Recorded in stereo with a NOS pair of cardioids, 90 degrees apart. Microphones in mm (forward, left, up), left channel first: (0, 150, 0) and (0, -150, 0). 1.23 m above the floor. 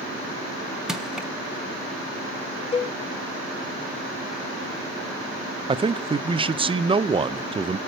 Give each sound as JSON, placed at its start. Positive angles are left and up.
{"t": 0.9, "sound": "crushing", "azimuth_deg": 0, "distance_m": 1.1}
{"t": 2.7, "sound": "a cowbell", "azimuth_deg": 20, "distance_m": 0.7}
{"t": 5.7, "sound": "a man speaking", "azimuth_deg": -15, "distance_m": 0.6}